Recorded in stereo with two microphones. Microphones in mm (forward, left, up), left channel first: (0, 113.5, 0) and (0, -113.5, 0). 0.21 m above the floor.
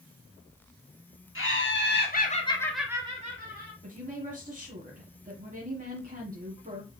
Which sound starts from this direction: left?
Laughter, at 1.4 s.